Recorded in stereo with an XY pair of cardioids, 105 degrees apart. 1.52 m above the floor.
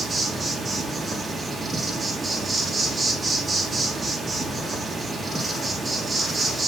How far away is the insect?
About 3 m.